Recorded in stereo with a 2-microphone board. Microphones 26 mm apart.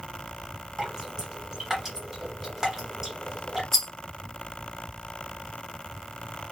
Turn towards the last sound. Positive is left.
turn(degrees=15)  # may be behind; listen again after turning